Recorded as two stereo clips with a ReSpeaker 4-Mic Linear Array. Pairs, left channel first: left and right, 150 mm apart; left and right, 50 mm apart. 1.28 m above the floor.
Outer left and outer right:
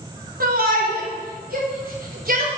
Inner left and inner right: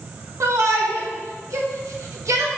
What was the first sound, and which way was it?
A shout, 80° right.